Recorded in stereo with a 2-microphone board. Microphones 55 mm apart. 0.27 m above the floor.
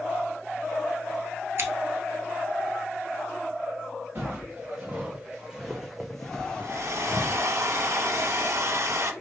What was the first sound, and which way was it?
Scissors, 50° right (ahead or behind).